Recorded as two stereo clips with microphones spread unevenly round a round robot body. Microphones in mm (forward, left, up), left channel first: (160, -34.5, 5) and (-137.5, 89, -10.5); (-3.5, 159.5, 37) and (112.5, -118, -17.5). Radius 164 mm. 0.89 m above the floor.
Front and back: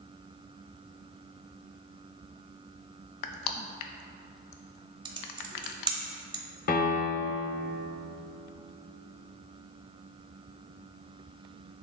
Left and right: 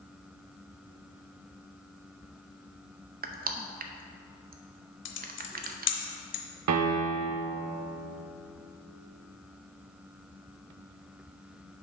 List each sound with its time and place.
3.2 s crushing: 20° right, 0.6 m
5.0 s typing on a keyboard: 80° left, 0.9 m
6.7 s a piano: 65° right, 0.6 m